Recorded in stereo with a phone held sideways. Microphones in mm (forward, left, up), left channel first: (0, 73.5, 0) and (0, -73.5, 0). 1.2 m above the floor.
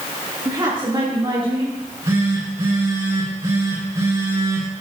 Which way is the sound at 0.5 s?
30° right (ahead or behind).